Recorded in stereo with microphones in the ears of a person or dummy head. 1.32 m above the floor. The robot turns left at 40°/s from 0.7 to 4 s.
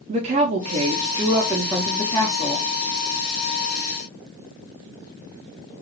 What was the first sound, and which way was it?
A woman speaking, 140° right.